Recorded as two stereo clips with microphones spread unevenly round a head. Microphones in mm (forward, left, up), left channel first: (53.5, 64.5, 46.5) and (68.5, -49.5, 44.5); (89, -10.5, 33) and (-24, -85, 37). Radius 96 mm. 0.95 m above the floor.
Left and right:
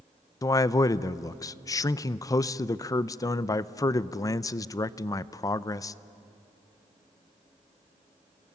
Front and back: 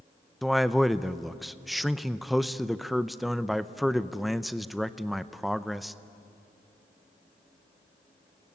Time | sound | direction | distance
0.4 | a man speaking | 120° left | 0.5 m